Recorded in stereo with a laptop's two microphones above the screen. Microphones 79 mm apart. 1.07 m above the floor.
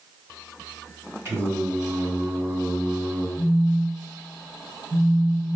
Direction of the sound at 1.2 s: 35° right (ahead or behind).